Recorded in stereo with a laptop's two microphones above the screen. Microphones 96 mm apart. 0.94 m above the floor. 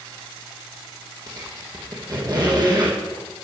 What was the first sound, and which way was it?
A squeak, 40° right (ahead or behind).